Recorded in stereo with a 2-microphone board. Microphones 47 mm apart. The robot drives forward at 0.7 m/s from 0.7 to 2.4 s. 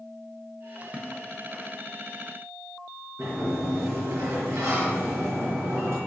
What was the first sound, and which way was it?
A splash, 30° right (ahead or behind).